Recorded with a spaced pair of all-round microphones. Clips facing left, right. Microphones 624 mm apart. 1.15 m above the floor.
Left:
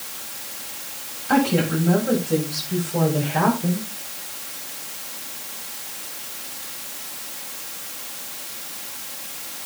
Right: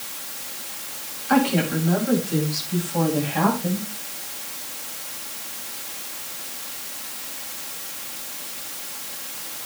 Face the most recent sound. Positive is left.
turn(degrees=70)  # may be behind; listen again after turning